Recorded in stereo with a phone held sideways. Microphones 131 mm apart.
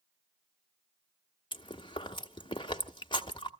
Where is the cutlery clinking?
I don't hear cutlery clinking.